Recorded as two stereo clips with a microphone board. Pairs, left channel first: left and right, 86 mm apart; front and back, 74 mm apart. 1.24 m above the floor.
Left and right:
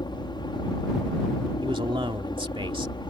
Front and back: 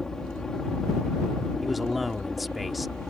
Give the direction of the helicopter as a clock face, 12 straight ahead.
9 o'clock.